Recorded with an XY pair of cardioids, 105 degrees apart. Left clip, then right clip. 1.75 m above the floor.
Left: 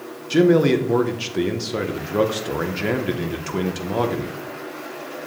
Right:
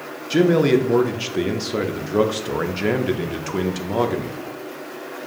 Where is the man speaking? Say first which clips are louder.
Even; 5° right, 0.6 m.